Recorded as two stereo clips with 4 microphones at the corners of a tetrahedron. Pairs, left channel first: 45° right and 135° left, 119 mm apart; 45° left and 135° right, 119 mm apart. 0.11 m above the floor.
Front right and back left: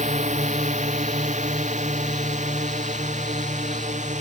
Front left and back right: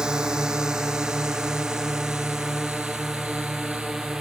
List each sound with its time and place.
0.0 s a drone: 140° left